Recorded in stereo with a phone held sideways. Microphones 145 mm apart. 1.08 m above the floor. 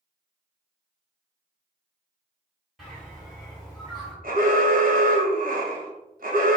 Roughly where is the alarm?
Right.